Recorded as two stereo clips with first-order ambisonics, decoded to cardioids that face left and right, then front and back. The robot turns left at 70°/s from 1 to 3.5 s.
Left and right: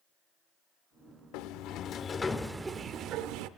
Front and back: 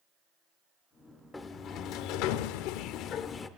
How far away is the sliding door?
About 0.6 m.